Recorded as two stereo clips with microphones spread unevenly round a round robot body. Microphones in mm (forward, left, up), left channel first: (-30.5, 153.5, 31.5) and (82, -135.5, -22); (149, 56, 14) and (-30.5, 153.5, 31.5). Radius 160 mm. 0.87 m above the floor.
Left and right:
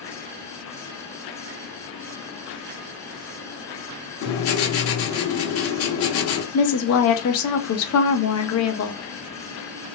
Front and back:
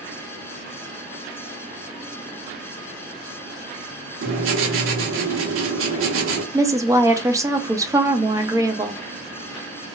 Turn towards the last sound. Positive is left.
turn(degrees=75)